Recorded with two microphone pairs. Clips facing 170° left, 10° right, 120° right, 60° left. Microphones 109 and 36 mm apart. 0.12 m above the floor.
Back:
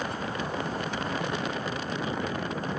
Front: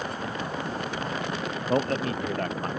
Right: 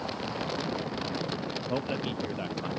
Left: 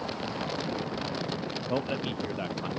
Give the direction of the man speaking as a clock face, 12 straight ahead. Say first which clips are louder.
Front 6 dB, left 2 dB; 1 o'clock.